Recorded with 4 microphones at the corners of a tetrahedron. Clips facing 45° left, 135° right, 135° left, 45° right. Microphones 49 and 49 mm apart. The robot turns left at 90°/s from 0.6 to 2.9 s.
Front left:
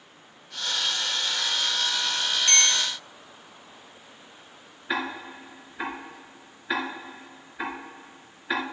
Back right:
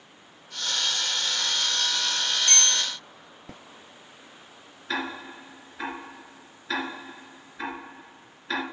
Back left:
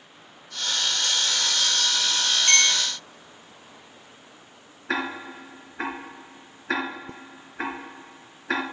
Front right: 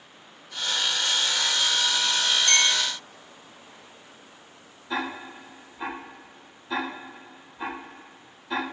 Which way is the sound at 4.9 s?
120° left.